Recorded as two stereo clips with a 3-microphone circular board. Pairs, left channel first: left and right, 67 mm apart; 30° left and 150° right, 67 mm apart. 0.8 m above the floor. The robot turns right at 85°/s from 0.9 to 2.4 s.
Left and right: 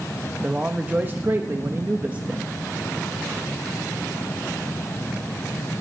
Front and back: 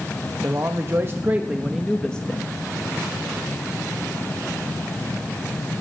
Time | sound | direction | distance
0.4 | a man speaking | 145° right | 0.9 m